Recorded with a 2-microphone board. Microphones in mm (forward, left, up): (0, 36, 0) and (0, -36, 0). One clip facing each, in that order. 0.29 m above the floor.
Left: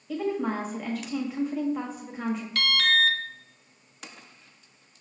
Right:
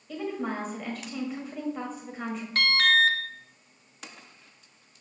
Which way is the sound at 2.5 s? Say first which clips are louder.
Right 3 dB; 35° right (ahead or behind).